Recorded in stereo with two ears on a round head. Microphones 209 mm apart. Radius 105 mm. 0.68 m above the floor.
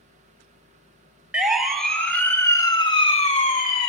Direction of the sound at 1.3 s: 5° right (ahead or behind).